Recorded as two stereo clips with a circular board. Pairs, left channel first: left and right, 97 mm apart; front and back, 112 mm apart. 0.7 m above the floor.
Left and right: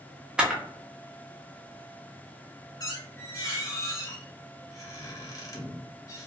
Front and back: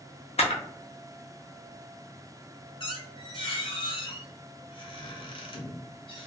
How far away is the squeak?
About 0.8 m.